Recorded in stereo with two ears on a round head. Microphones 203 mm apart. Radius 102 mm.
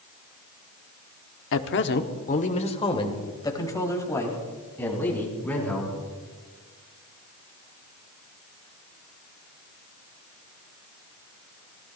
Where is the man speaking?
65° left (ahead or behind), 1.1 m; by 6.0 s 5° left (ahead or behind), 5.5 m.